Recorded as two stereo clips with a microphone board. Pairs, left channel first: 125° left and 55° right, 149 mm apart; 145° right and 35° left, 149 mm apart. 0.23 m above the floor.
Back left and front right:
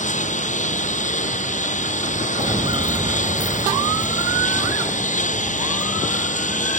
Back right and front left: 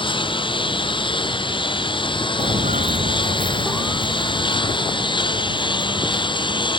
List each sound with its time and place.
0.0 s a lawn mower: 160° left; by 6.8 s 155° left
2.4 s footsteps: 5° right; by 6.7 s 15° left